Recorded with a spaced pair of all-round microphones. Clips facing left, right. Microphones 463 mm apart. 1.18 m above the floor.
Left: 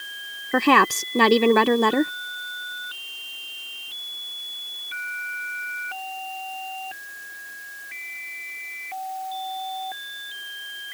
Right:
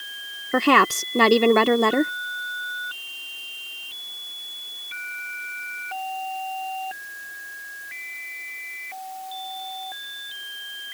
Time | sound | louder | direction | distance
0.5 | a woman speaking | even | centre (ahead or behind) | ?